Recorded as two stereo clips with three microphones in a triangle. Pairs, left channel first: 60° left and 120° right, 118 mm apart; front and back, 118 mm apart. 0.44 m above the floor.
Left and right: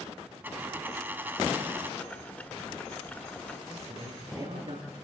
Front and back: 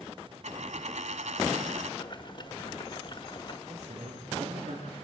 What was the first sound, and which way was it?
A dropped coin, 165° left.